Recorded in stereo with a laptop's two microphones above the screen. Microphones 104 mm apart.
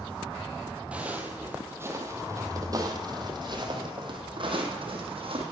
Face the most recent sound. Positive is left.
turn(degrees=-60)  # may be behind; listen again after turning